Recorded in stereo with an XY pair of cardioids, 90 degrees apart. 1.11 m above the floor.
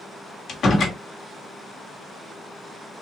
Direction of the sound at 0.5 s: 60° left.